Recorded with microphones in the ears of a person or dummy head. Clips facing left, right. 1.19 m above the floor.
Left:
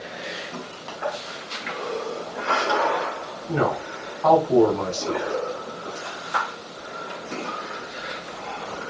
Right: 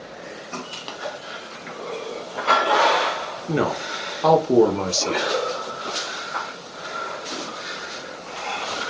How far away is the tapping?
About 0.7 m.